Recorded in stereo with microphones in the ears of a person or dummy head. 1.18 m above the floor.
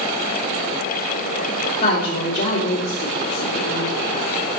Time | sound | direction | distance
1.8 | a woman speaking | 35° left (ahead or behind) | 2.5 m